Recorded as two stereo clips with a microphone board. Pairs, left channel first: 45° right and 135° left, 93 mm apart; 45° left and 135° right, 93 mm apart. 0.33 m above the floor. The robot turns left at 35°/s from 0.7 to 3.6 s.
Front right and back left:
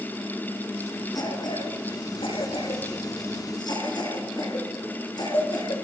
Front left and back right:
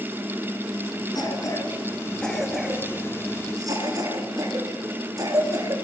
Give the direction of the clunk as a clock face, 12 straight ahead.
I don't hear a clunk.